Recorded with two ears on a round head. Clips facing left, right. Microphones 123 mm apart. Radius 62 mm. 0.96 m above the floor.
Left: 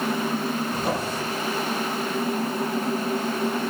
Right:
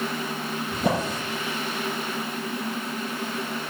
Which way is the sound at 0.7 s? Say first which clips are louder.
Right 1 dB; 60° right (ahead or behind).